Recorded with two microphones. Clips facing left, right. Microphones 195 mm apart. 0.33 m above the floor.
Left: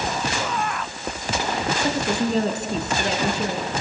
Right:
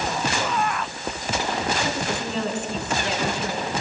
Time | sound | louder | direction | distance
1.8 | a woman speaking | left 5 dB | 40° left (ahead or behind) | 3 m